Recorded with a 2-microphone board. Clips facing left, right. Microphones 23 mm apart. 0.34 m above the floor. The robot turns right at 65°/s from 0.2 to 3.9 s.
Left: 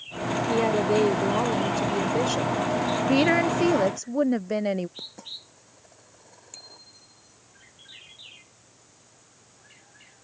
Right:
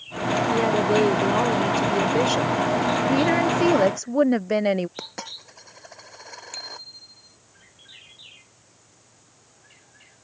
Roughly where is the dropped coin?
Right.